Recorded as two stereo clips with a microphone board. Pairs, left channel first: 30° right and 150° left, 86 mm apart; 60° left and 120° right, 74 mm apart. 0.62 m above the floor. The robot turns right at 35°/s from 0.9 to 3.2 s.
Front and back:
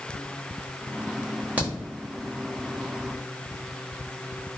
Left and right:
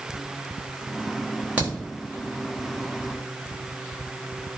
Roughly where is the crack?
Behind.